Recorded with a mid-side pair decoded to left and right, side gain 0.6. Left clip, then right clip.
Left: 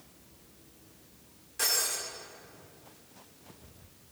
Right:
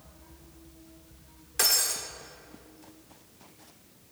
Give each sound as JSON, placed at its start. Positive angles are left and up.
{"t": 1.6, "sound": "breaking glass", "azimuth_deg": -55, "distance_m": 2.0}